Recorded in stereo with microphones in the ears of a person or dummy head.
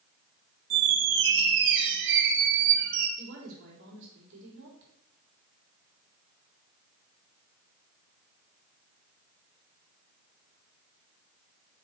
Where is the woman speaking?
70° right (ahead or behind), 4 m.